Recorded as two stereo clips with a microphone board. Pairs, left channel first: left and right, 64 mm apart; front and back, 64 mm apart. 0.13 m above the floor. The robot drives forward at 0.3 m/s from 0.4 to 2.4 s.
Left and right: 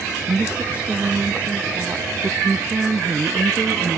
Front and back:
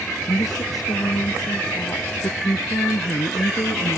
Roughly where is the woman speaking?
Ahead.